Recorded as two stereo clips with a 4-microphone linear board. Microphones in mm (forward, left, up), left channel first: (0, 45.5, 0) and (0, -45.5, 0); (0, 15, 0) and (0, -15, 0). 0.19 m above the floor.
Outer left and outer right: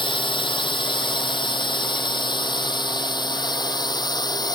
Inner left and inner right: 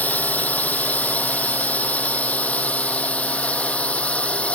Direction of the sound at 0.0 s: 65° left (ahead or behind).